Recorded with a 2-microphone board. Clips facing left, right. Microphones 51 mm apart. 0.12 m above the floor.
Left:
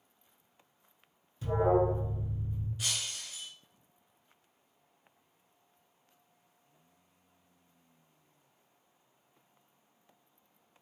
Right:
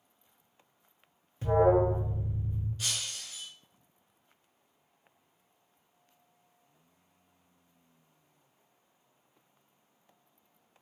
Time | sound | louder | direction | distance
1.4 | an alarm | right 3 dB | 40° right (ahead or behind) | 0.9 m
2.8 | breaking glass | left 2 dB | 10° left (ahead or behind) | 0.9 m